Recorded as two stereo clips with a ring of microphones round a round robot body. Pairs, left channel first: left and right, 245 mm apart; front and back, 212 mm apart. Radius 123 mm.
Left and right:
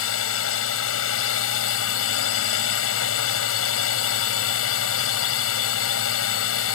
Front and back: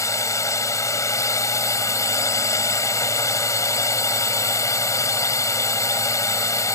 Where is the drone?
75° left.